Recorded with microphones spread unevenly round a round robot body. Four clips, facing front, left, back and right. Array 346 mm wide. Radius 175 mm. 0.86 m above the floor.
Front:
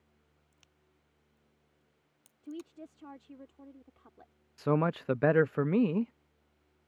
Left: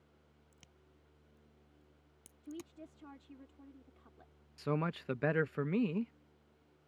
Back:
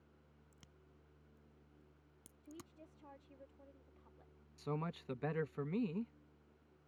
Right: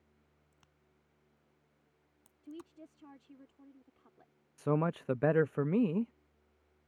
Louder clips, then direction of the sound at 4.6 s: Right 4 dB, front 14 dB; 15° right.